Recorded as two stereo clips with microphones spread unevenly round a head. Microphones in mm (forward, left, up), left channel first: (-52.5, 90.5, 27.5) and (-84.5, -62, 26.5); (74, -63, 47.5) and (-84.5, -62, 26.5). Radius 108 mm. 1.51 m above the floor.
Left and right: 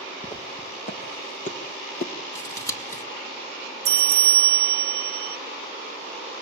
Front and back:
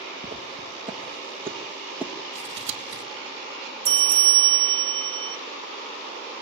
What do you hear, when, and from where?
0.2 s footsteps: 115° left, 2.5 m; by 2.1 s 85° left, 2.0 m
2.4 s scissors: 150° left, 2.5 m
3.9 s a bell: 130° right, 1.2 m